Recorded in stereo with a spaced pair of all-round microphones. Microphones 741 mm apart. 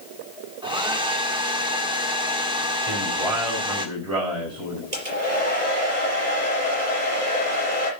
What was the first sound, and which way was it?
A hair dryer, 5° right (ahead or behind).